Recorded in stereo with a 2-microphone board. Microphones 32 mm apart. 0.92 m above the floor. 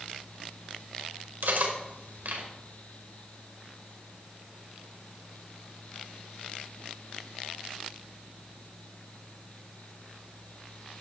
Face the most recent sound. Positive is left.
turn(degrees=-75)  # may be behind; listen again after turning